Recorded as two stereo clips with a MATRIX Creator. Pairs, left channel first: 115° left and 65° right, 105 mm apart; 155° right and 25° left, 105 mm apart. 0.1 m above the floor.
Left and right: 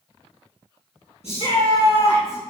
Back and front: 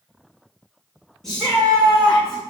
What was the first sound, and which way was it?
A shout, 115° left.